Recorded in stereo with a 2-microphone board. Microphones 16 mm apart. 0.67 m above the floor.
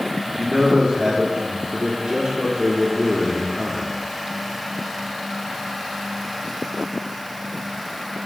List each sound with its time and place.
0.3 s a man speaking: 45° right (ahead or behind), 1.3 m